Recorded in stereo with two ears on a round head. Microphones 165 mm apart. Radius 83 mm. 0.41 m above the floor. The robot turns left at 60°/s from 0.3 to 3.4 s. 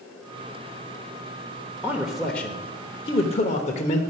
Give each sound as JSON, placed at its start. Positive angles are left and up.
{"t": 1.8, "sound": "a man speaking", "azimuth_deg": -160, "distance_m": 1.0}